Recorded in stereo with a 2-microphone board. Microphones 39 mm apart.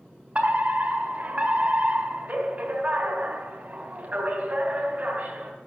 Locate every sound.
0.3 s a fire alarm: 30° right (ahead or behind), 3 m